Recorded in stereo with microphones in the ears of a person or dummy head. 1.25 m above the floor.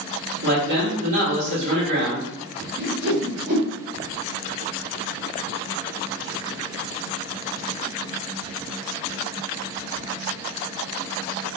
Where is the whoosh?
45° right (ahead or behind), 1.9 m.